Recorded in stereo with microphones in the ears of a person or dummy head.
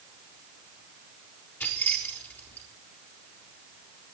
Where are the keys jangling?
10° left (ahead or behind), 4 m.